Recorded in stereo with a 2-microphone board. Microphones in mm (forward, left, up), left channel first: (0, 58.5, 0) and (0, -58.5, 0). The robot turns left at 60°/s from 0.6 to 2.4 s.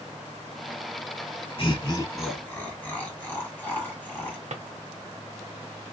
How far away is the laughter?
About 1.1 m.